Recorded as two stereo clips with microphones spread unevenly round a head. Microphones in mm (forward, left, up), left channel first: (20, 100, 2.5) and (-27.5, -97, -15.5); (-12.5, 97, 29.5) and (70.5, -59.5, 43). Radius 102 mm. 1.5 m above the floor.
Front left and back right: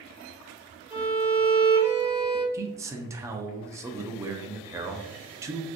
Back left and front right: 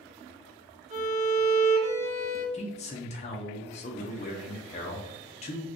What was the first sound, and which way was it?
A violin, 20° right.